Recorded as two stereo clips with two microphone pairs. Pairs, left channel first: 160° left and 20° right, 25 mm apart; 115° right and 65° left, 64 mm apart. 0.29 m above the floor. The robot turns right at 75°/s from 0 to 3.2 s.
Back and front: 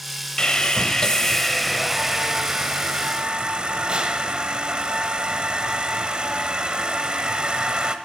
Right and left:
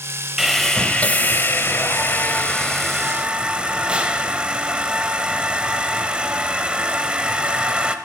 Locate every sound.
0.4 s sawing: 145° left, 0.8 m; by 8.0 s straight ahead, 0.8 m